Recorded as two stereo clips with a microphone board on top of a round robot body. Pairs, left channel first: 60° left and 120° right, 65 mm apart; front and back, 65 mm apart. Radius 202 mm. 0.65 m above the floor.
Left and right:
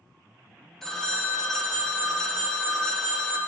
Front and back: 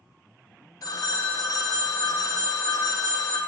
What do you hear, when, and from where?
0.8 s a phone ringing: 25° right, 0.9 m